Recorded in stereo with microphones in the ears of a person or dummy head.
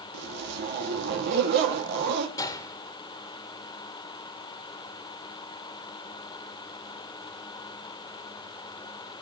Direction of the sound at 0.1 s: 60° right (ahead or behind).